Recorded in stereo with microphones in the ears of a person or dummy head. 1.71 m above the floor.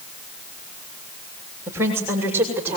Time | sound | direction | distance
1.7 | a woman speaking | 10° right (ahead or behind) | 6.5 m